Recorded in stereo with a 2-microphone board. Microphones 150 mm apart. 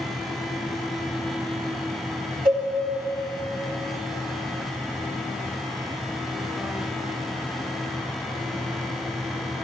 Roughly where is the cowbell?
Right.